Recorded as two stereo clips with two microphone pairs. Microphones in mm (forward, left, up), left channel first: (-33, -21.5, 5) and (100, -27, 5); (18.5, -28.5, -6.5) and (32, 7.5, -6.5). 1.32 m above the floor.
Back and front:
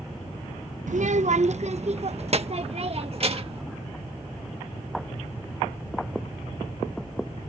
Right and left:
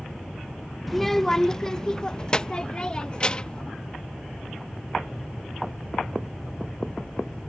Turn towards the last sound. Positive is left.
turn(degrees=-45)